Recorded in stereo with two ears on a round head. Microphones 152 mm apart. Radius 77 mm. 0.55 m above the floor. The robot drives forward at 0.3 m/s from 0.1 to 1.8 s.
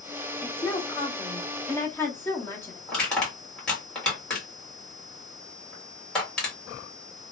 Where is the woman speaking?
15° left (ahead or behind), 0.6 m.